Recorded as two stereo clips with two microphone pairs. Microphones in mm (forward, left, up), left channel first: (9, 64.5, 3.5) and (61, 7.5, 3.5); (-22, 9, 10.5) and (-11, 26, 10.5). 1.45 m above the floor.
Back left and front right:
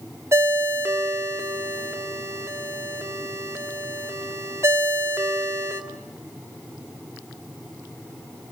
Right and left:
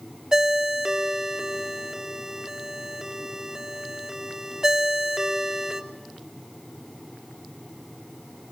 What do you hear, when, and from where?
0.3 s a ringtone: straight ahead, 1.7 m